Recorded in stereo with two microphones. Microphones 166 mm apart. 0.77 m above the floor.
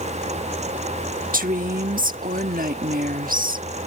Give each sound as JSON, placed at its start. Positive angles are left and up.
{"t": 1.3, "sound": "a woman speaking", "side_deg": -60}